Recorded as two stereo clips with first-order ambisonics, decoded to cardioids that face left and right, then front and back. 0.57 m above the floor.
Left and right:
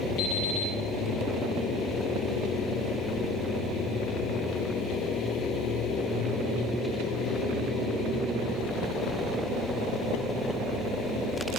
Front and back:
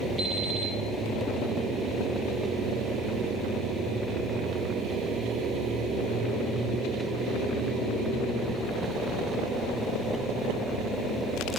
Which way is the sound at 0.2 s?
85° left.